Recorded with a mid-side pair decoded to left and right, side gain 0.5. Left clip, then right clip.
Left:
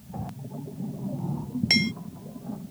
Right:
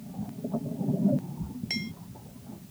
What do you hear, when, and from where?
1.7 s hammering: 60° left